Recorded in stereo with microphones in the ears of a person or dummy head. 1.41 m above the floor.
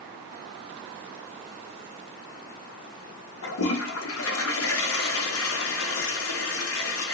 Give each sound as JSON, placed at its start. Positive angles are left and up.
{"t": 3.4, "sound": "a toilet flushing", "side_deg": 75, "distance_m": 0.6}